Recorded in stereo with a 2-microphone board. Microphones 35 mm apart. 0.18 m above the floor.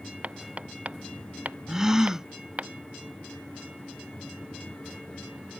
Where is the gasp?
15° right (ahead or behind).